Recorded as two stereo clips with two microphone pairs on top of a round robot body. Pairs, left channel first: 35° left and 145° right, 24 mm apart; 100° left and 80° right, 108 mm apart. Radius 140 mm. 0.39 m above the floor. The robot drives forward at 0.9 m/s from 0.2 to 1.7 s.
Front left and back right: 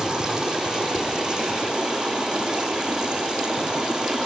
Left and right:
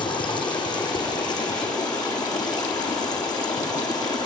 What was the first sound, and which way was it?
Running water, 150° left.